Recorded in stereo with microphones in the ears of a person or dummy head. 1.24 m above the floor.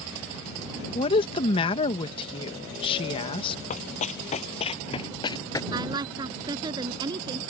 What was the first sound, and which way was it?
A woman speaking, 35° left (ahead or behind).